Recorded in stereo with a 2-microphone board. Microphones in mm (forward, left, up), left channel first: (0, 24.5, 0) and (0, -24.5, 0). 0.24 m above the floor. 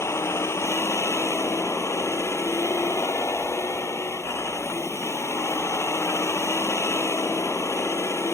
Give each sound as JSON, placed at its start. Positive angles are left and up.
{"t": 0.0, "sound": "a vehicle", "side_deg": 65}